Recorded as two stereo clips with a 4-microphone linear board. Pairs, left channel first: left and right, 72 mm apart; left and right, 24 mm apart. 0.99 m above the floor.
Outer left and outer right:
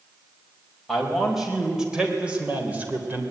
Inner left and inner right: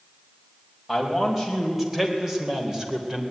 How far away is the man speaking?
About 5 m.